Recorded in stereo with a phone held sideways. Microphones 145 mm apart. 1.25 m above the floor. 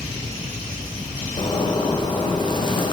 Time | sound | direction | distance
1.4 | a zipper | 30° left (ahead or behind) | 1.1 m